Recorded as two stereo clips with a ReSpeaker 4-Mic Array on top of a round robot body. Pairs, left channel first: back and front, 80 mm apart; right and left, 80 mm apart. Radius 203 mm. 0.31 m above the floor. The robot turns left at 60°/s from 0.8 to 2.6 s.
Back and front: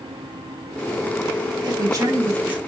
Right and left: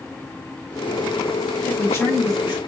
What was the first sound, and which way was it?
A man speaking, 15° right.